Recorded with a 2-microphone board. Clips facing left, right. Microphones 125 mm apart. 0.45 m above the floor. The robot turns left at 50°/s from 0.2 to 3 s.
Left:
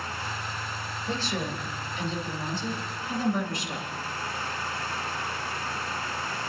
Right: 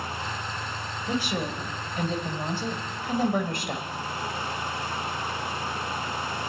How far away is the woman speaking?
About 2 m.